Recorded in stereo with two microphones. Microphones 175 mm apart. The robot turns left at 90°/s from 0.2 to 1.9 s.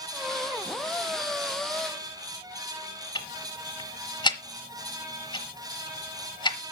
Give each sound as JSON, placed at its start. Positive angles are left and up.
{"t": 3.1, "sound": "ticking", "side_deg": 25, "distance_m": 1.3}